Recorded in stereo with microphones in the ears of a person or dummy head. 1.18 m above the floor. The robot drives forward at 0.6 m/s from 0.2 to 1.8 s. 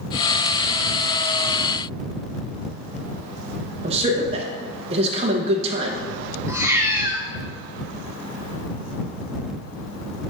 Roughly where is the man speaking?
Right.